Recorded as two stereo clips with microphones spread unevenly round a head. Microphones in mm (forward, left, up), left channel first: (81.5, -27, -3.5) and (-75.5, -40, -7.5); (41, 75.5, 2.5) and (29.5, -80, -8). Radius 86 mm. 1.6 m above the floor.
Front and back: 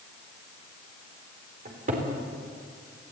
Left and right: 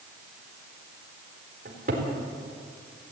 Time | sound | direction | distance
1.6 | a cupboard door | 140° right | 4 m